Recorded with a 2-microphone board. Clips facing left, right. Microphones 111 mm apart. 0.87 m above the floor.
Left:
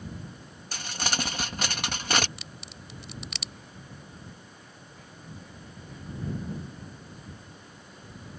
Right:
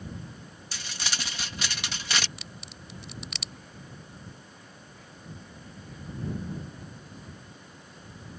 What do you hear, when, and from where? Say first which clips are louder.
0.7 s crumpling: left 5 dB; 45° left (ahead or behind)
2.4 s a crack: even; centre (ahead or behind)